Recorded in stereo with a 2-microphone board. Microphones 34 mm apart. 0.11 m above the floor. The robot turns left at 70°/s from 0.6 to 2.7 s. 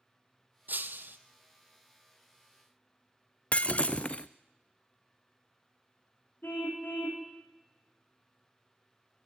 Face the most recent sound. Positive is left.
turn(degrees=80)